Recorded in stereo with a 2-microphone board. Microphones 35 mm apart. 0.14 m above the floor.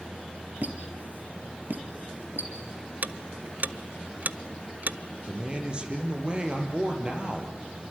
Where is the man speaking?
30° right (ahead or behind), 4.5 m.